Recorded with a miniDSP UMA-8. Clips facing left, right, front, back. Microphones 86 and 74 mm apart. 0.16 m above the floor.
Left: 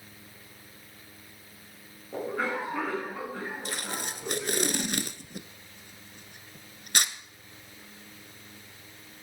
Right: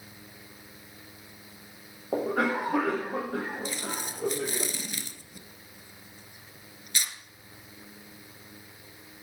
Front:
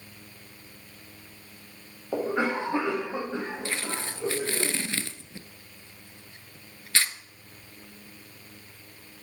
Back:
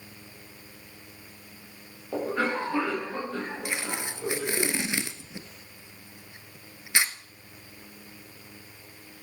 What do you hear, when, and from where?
2.1 s a cough: 70° right, 5 m
3.6 s tape being pulled: 110° left, 0.9 m